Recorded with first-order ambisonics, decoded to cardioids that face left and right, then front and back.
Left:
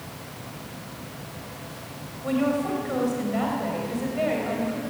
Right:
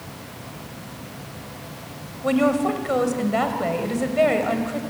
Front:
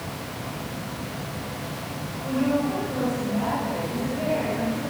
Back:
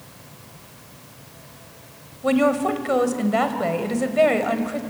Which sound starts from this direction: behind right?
A woman speaking, at 2.2 s.